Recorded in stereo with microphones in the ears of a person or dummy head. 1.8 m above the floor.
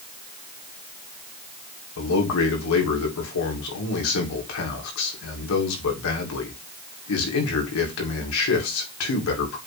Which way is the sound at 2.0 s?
75° left (ahead or behind).